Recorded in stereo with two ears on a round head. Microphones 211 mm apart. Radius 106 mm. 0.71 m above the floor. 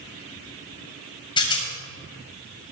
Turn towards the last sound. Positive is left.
turn(degrees=20)  # may be behind; listen again after turning